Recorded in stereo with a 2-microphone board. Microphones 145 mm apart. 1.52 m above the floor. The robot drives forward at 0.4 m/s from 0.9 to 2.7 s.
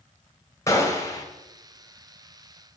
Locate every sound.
0.7 s a gunshot: 20° left (ahead or behind), 0.7 m; by 1.2 s 25° left (ahead or behind), 0.6 m